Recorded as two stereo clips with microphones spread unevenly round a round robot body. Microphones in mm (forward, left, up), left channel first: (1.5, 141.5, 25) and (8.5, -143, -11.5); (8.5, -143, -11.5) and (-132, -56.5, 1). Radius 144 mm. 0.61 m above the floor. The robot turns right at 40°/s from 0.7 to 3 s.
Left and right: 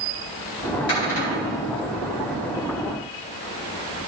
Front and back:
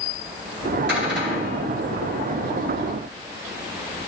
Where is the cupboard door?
150° left, 4 m; by 1.6 s 175° left, 4 m.